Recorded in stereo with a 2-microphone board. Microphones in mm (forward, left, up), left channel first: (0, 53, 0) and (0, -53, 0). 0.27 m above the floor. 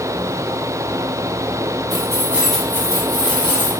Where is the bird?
I don't hear a bird.